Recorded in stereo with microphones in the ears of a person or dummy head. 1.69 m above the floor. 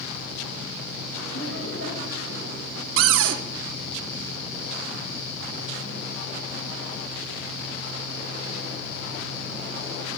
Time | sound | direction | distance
1.3 | laughter | 90° left | 2.5 m
3.0 | a cupboard door | 75° right (ahead or behind) | 0.9 m